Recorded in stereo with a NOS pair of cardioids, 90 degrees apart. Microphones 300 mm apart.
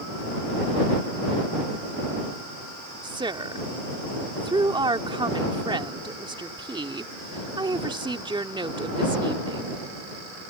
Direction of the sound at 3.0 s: 15° right.